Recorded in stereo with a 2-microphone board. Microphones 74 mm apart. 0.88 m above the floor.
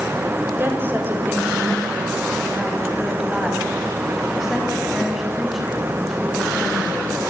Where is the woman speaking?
30° right (ahead or behind), 4 m; by 7.1 s 5° left (ahead or behind), 9 m.